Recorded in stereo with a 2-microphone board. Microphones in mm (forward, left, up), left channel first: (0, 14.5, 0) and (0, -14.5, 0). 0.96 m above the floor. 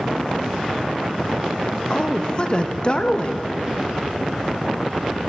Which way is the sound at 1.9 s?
35° left (ahead or behind).